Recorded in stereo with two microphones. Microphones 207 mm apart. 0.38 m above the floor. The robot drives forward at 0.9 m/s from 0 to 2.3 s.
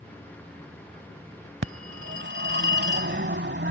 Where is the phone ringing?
70° right (ahead or behind); by 3.7 s 60° right (ahead or behind).